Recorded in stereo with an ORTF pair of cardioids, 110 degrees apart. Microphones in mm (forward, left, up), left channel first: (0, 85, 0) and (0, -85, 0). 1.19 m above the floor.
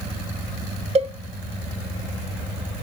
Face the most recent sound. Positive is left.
turn(degrees=-40)